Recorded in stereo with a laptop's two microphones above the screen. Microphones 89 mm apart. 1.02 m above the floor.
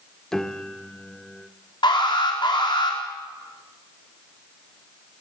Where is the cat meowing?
I don't hear a cat meowing.